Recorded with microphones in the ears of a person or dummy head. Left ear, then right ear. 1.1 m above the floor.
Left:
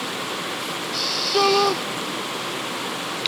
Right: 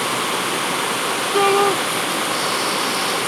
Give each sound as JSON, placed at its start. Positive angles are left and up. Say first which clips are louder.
{"t": 1.3, "sound": "a shout", "louder": "right 2 dB", "side_deg": 0}